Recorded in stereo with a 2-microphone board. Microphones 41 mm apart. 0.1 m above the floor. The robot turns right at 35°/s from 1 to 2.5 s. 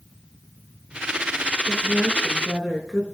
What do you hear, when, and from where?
1.6 s a woman speaking: 25° right (ahead or behind), 5 m; by 3.0 s 5° left (ahead or behind), 5 m